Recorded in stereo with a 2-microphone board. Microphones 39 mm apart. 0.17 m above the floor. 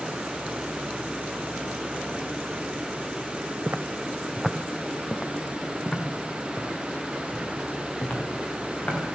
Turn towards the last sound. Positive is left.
turn(degrees=35)  # may be behind; listen again after turning